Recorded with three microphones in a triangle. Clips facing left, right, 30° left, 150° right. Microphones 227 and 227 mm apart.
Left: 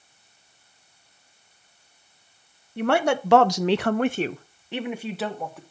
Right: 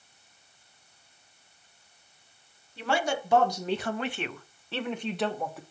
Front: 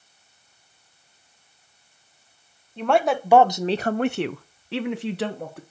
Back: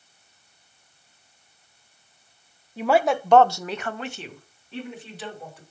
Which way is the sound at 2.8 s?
130° left.